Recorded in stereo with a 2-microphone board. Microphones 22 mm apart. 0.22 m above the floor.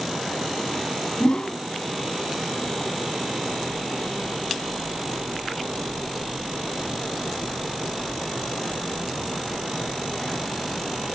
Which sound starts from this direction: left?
A whoosh, at 1.2 s.